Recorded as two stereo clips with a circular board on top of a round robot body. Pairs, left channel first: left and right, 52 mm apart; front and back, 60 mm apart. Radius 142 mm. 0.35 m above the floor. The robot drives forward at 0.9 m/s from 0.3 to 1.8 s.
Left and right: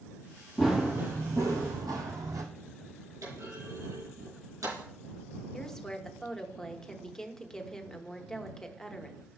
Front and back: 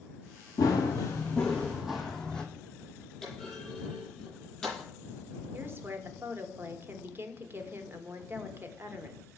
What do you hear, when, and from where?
0.6 s running footsteps: 5° right, 0.6 m; by 2.4 s 75° right, 0.9 m
3.2 s a clunk: 85° right, 4.5 m
5.5 s a woman speaking: 165° left, 1.1 m